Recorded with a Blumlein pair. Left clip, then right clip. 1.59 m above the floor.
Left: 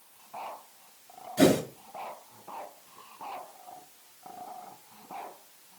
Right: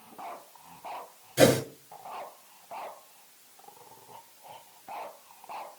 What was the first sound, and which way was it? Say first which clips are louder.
A whoosh: right 2 dB; 20° right.